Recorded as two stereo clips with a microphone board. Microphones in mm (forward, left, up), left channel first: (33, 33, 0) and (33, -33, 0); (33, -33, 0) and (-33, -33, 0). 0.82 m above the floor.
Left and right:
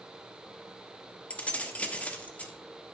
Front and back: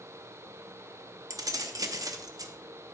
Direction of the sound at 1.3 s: 160° left.